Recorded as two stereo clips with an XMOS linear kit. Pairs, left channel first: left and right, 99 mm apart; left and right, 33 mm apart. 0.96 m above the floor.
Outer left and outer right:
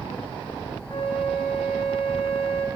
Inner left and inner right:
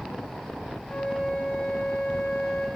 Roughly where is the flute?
Left.